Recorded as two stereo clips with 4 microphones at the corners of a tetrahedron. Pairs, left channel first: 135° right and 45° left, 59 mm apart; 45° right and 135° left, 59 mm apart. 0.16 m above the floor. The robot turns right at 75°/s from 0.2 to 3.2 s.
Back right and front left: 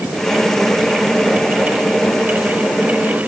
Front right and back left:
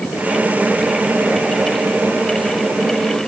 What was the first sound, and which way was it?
Only background noise.